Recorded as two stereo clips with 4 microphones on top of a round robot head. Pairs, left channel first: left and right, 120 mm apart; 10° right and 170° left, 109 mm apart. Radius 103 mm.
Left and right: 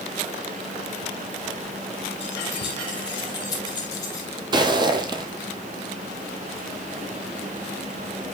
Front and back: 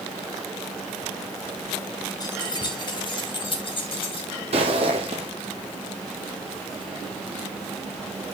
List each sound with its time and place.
2.2 s keys jangling: 40° left, 2.5 m; by 4.3 s 25° left, 3 m
4.5 s footsteps: 140° right, 1.2 m